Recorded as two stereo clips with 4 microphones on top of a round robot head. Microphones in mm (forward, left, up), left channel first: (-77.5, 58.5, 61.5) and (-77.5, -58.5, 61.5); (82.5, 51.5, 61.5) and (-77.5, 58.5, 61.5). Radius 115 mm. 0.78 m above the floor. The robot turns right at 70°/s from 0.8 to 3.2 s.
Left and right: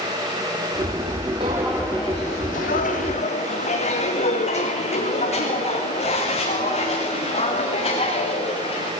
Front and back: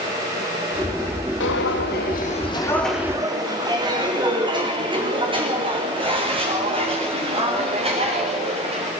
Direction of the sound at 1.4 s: 30° right.